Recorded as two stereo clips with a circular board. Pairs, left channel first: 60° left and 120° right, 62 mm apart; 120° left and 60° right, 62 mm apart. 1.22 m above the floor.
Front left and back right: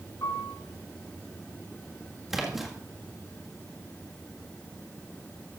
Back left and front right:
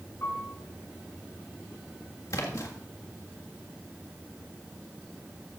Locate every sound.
0.2 s a piano: 75° left, 5 m
2.3 s a splash: 155° left, 1.7 m